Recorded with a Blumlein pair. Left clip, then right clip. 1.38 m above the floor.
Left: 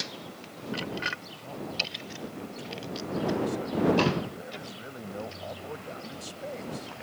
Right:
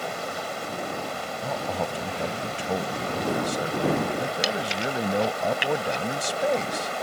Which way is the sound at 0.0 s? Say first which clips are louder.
Right 8 dB; 50° right.